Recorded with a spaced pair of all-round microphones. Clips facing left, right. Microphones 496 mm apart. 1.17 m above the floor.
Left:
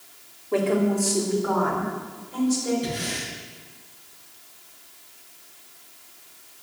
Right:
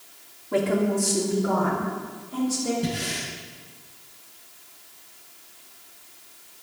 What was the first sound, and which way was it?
A woman speaking, 35° right (ahead or behind).